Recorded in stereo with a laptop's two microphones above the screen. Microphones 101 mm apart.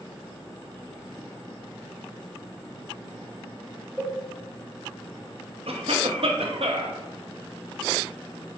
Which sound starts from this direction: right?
A cough, at 5.7 s.